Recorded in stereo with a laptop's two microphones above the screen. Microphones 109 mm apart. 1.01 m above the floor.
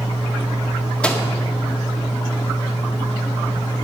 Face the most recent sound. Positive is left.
turn(degrees=10)  # may be behind; listen again after turning